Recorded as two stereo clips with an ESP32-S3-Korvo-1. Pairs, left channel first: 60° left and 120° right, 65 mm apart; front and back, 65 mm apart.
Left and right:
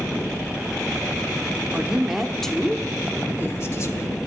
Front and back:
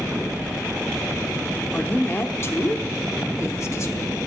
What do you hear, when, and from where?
1.7 s a woman speaking: 55° right, 1.2 m; by 4.2 s 35° left, 1.6 m